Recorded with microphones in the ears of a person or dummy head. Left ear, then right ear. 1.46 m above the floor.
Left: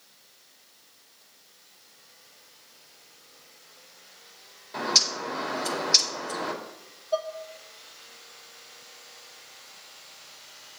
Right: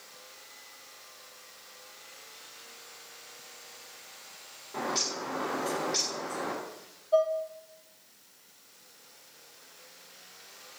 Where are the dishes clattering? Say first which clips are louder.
Right 4 dB; 20° left (ahead or behind), 0.9 m.